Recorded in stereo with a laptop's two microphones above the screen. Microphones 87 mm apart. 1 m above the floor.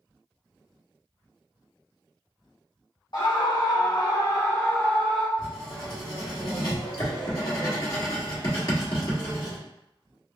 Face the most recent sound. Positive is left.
turn(degrees=50)  # may be behind; listen again after turning